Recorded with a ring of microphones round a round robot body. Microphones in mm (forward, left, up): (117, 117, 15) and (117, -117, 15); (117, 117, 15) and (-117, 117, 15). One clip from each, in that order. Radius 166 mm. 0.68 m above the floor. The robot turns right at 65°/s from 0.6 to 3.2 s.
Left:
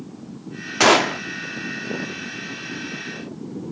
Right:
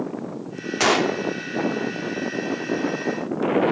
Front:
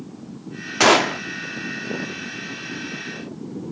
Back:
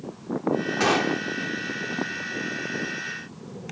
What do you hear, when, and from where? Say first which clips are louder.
0.8 s a gunshot: left 4 dB, front 9 dB; 20° left; by 1.2 s 45° left